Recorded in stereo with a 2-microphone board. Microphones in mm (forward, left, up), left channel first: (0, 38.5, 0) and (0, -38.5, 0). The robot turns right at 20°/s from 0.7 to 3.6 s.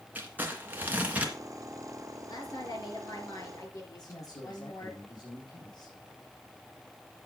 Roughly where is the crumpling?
Right.